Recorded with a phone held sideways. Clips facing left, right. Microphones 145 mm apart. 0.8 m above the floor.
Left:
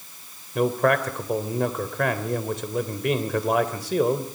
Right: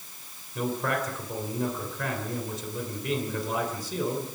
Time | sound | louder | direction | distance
0.6 | a man speaking | left 8 dB | 75° left (ahead or behind) | 3 m